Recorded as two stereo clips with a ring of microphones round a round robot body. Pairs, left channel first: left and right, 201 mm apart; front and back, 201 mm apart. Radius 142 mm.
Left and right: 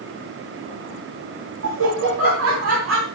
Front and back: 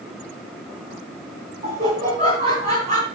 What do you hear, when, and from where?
1.6 s laughter: 110° right, 2.5 m